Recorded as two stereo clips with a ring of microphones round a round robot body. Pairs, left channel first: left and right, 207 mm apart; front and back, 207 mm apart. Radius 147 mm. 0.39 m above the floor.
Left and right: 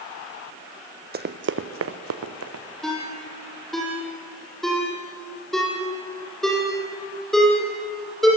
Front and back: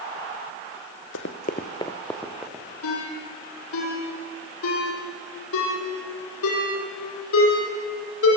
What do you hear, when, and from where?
1.1 s running footsteps: 45° right, 1.6 m; by 2.6 s 100° right, 2.5 m
2.8 s a ringtone: straight ahead, 9.5 m